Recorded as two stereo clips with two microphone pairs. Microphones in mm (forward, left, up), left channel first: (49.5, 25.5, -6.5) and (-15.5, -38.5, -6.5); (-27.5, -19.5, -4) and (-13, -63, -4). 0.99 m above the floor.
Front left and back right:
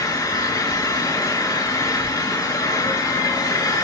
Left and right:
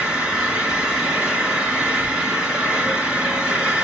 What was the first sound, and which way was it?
An engine running, 5° right.